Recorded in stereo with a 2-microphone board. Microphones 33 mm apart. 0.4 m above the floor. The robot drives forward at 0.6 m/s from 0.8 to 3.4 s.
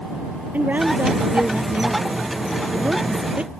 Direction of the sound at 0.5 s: 60° right (ahead or behind).